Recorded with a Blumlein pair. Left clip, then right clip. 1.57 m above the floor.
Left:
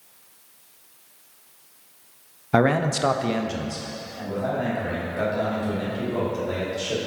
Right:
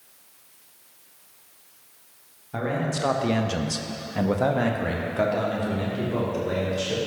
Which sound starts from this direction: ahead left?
A man speaking, at 2.5 s.